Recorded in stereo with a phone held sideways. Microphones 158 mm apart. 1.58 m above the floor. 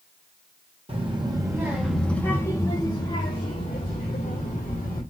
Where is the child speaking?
35° right (ahead or behind), 1.2 m; by 5.0 s 65° left (ahead or behind), 2 m.